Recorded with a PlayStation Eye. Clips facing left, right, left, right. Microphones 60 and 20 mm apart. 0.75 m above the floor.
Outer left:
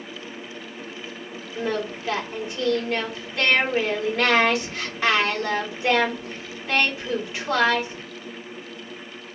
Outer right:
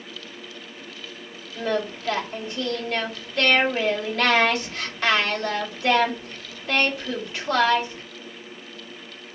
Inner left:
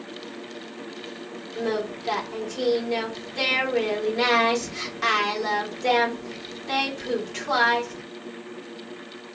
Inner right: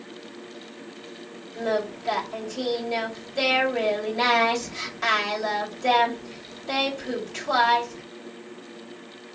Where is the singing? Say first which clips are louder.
Outer right 1 dB, inner right 1 dB; 10° left (ahead or behind), 1.9 m.